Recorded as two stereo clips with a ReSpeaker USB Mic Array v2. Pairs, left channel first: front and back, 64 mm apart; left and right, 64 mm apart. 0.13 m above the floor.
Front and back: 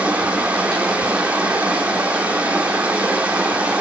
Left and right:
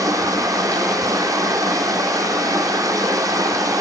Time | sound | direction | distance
0.0 | running water | 110° right | 0.9 m